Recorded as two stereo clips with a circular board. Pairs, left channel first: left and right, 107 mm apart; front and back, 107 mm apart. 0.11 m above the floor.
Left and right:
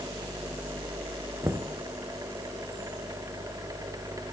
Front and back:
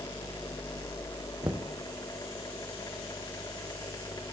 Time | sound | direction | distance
1.4 | knocking | 135° right | 1.7 m